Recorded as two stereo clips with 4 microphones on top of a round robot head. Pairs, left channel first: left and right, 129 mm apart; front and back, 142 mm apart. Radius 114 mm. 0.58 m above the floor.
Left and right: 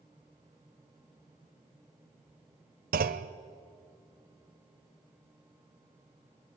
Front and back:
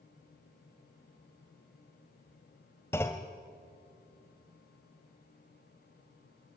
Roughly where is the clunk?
Right.